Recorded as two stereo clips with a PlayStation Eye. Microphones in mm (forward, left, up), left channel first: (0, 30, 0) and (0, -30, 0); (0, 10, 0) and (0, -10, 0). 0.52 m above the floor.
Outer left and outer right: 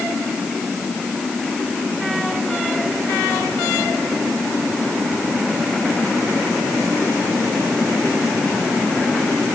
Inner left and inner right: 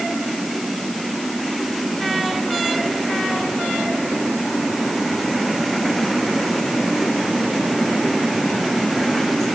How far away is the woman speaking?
I don't hear a woman speaking.